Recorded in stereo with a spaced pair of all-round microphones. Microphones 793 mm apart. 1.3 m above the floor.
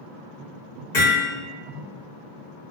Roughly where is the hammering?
Left.